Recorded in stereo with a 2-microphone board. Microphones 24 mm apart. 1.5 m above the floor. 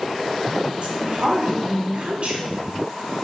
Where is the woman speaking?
55° right (ahead or behind), 2.5 m.